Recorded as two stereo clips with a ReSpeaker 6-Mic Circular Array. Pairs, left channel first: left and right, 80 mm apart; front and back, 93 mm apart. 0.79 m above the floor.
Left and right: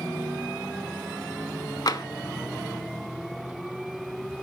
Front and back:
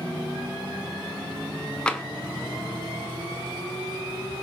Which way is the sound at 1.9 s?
80° left.